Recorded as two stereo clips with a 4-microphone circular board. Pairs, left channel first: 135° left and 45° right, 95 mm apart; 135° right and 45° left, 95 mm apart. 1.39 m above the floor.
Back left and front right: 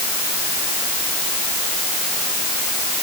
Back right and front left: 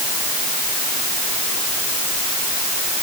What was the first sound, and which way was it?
Only background noise.